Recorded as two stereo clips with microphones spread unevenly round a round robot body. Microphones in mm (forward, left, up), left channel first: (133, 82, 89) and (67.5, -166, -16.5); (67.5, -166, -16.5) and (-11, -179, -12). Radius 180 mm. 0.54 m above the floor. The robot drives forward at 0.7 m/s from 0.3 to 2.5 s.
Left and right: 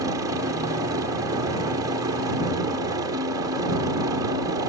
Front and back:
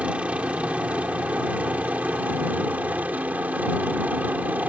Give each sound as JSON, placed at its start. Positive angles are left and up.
{"t": 0.0, "sound": "a helicopter", "azimuth_deg": -110}